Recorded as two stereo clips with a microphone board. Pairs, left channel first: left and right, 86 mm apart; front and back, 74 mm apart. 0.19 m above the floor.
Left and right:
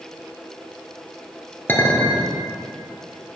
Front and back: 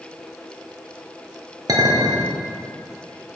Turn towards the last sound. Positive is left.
turn(degrees=155)